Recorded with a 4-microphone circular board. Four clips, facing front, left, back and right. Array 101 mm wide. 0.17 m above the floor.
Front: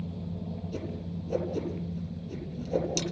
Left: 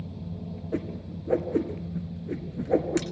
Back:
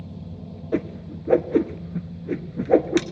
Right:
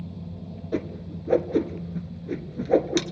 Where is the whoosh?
170° right, 1.9 m.